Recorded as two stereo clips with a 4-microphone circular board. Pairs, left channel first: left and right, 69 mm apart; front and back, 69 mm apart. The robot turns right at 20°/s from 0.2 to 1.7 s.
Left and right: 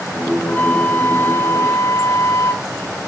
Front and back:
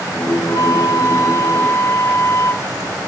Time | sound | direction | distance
0.4 | a flute | 20° left | 0.7 m